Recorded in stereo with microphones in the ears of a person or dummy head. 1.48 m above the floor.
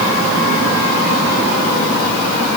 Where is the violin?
No violin in this recording.